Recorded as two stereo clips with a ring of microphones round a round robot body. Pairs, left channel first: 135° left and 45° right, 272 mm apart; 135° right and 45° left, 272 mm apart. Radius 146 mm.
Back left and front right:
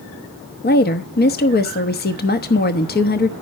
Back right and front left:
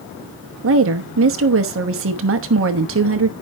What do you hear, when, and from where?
0.6 s a woman speaking: 80° left, 1.1 m